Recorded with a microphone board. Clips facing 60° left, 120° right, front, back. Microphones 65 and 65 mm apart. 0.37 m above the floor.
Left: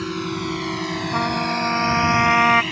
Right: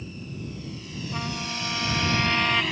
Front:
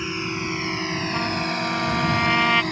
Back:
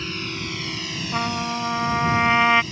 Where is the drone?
75° left; by 2.7 s 30° right.